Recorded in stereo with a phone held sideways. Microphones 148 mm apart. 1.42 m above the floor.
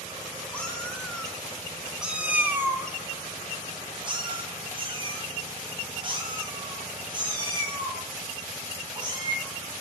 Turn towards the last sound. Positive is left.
turn(degrees=-30)  # may be behind; listen again after turning